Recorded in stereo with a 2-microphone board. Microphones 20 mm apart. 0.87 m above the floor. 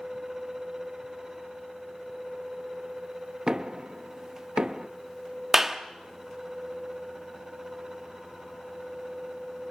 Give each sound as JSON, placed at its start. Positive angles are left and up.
{"t": 3.5, "sound": "knocking", "side_deg": -40, "distance_m": 0.7}
{"t": 5.5, "sound": "a clap", "side_deg": -20, "distance_m": 1.1}